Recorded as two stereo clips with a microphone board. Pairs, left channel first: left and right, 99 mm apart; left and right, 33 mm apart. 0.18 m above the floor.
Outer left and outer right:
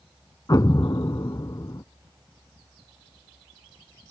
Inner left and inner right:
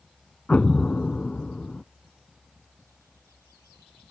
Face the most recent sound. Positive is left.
turn(degrees=45)  # may be behind; listen again after turning